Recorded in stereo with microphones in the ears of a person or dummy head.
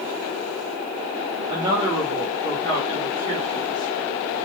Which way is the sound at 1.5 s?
25° right (ahead or behind).